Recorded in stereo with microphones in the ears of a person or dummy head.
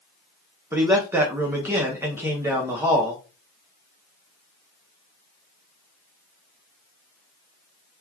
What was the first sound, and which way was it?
A man speaking, 15° right (ahead or behind).